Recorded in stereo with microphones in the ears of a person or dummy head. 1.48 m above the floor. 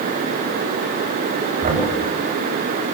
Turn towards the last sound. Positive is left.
turn(degrees=-40)  # may be behind; listen again after turning